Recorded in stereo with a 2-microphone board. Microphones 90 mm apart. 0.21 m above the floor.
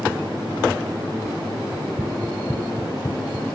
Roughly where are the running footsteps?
Right.